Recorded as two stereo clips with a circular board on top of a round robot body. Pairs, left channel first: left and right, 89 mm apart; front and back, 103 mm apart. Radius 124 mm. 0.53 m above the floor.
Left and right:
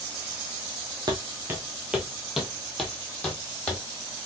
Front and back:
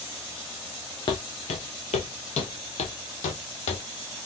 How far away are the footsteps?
About 0.7 m.